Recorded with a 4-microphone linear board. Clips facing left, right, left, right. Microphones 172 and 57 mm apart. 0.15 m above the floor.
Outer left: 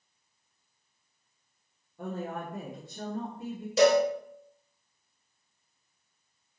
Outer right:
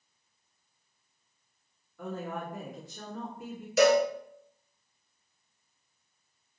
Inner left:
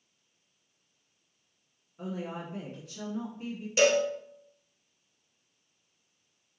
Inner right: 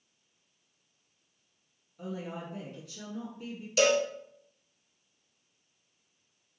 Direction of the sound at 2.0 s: 30° left (ahead or behind).